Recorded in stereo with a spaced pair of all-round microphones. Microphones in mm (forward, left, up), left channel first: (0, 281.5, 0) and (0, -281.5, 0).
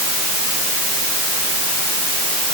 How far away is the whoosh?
I don't hear a whoosh.